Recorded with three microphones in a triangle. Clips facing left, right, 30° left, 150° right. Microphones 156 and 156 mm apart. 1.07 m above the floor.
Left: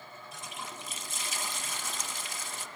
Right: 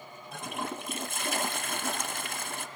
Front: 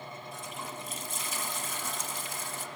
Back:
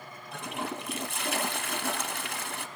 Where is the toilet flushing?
125° right, 0.6 m.